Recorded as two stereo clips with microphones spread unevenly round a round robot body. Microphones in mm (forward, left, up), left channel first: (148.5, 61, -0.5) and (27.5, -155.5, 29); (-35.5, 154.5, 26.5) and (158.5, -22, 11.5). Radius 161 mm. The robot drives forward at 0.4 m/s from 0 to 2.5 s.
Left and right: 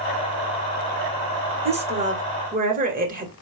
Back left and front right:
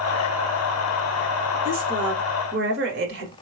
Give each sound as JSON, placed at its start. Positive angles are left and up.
{"t": 1.6, "sound": "a woman speaking", "azimuth_deg": -55, "distance_m": 1.5}